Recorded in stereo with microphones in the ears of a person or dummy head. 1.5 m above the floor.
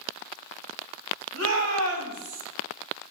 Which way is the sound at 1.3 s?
80° right.